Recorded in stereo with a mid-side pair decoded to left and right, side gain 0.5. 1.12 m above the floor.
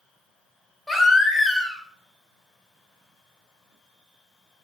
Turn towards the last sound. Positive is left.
turn(degrees=5)